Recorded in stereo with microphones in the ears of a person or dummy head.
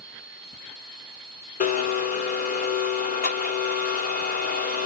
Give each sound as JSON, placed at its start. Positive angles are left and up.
{"t": 1.6, "sound": "a blender", "side_deg": 45, "distance_m": 0.9}